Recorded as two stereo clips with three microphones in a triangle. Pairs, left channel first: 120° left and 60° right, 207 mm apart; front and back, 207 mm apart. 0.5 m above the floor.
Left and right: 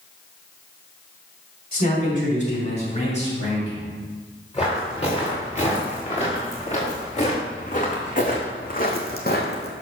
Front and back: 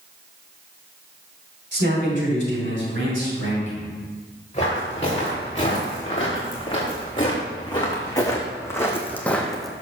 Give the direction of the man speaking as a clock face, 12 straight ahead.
7 o'clock.